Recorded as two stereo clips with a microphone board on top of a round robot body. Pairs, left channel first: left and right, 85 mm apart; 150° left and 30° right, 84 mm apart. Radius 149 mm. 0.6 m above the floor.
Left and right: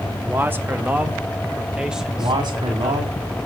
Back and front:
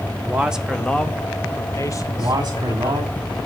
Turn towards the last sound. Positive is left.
turn(degrees=-75)